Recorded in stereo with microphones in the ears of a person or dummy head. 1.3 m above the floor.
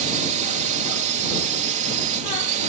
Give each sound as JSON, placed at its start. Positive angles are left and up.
{"t": 0.0, "sound": "a drone", "side_deg": -50}